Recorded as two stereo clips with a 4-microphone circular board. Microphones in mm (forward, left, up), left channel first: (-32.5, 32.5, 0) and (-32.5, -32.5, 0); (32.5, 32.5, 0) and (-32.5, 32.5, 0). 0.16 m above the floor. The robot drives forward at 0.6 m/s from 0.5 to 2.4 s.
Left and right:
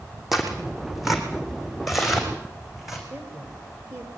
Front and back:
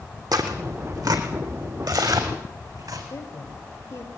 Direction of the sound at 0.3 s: Straight behind.